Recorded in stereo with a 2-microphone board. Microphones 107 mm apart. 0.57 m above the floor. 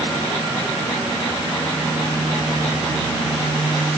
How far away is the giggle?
No giggle in this recording.